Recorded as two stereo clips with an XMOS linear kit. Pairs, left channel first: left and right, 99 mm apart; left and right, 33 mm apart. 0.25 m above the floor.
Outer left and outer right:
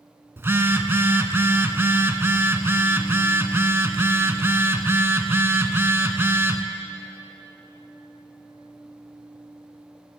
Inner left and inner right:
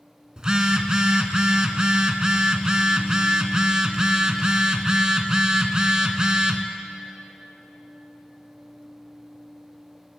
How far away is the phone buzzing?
About 1.0 m.